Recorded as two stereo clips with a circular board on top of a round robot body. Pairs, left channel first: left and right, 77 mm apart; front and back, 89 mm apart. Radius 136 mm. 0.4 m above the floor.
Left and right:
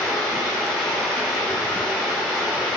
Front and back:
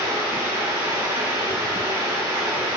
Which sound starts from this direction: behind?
Running water, at 0.0 s.